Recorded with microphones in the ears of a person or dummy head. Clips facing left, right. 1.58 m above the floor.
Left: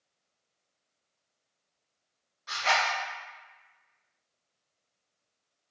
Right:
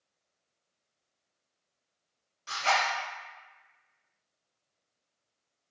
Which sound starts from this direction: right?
A zipper, at 2.5 s.